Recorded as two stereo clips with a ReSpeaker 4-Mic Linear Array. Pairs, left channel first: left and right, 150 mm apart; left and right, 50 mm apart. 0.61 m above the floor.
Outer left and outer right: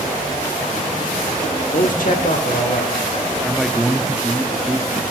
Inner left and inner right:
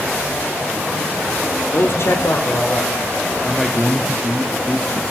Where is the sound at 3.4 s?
Centre (ahead or behind), 0.6 m.